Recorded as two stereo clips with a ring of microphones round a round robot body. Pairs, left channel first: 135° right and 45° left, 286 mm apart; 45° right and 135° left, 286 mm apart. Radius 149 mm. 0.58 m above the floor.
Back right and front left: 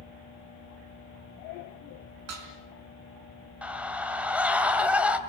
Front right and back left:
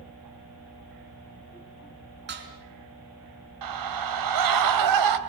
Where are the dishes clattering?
80° left, 4.5 m.